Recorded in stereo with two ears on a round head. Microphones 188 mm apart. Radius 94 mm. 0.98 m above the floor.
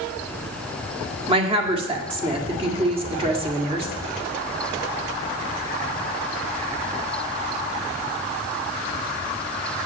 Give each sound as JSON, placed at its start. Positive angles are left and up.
{"t": 1.3, "sound": "a woman speaking", "side_deg": -25, "distance_m": 1.8}